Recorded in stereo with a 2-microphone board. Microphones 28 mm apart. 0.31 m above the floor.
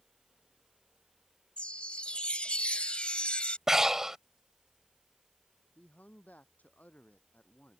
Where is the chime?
45° left (ahead or behind).